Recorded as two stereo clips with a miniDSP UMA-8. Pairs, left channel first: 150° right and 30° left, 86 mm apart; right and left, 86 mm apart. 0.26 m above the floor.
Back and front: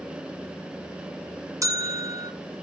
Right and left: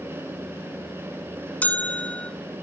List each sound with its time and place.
1.6 s a bell: 20° right, 1.4 m